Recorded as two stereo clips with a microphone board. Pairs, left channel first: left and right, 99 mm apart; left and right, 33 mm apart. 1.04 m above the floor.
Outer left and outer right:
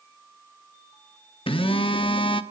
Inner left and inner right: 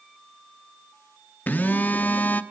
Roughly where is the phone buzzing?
Left.